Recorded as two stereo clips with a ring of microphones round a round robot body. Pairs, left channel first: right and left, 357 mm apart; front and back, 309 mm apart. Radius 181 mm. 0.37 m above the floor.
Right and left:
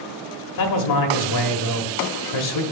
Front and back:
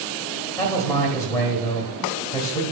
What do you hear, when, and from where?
0.6 s a man speaking: 80° right, 1.3 m